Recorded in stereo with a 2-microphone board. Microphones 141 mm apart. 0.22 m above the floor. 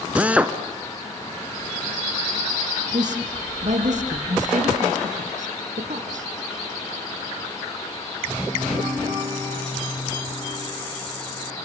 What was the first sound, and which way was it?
A drill, 10° right (ahead or behind).